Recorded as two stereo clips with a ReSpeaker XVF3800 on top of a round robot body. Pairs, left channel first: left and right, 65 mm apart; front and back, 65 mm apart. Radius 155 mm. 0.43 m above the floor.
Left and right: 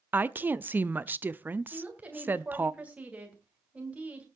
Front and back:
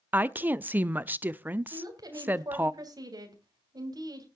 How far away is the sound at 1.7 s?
About 3 m.